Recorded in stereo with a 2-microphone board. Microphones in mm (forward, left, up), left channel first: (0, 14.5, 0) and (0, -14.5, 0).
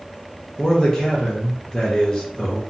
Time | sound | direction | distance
0.6 | a man speaking | 25° left (ahead or behind) | 0.5 m